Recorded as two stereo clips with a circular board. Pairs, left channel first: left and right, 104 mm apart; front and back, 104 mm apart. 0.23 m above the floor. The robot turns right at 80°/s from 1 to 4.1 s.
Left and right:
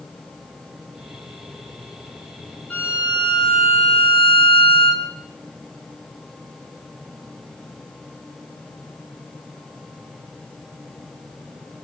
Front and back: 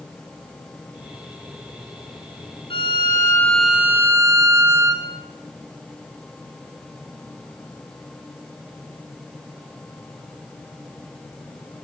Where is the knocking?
I don't hear knocking.